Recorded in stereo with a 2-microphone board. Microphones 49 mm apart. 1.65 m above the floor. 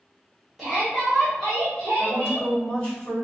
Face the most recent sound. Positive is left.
turn(degrees=15)  # may be behind; listen again after turning